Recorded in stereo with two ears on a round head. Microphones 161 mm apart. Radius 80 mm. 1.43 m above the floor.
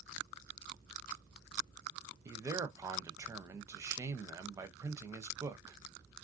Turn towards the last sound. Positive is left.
turn(degrees=-15)  # may be behind; listen again after turning